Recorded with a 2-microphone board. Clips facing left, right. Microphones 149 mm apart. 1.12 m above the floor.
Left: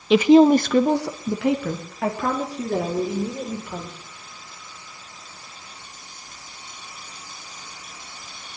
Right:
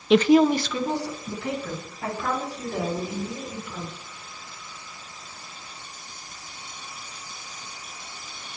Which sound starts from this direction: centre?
A woman speaking, at 0.1 s.